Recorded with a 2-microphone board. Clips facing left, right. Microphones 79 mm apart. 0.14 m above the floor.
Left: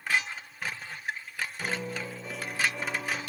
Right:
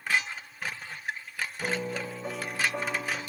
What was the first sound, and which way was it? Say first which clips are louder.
A piano: right 3 dB; 50° right (ahead or behind).